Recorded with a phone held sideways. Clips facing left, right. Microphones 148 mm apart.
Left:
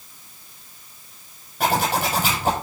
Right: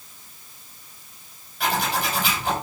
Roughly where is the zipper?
Left.